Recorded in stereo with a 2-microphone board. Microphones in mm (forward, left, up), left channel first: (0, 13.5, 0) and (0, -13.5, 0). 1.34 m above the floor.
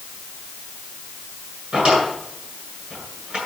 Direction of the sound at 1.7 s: 45° right (ahead or behind).